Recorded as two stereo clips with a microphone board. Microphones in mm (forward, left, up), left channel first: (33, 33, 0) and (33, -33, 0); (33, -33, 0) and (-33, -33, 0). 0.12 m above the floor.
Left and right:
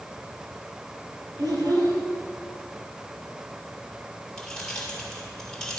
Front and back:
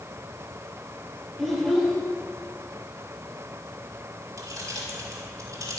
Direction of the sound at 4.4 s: 165° left.